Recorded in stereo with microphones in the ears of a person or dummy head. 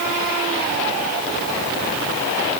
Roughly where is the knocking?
No knocking in this recording.